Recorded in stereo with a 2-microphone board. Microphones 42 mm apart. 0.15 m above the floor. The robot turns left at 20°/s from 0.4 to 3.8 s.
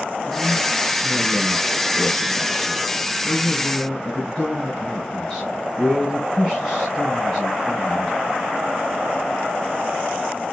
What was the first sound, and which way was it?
A man speaking, 20° left (ahead or behind).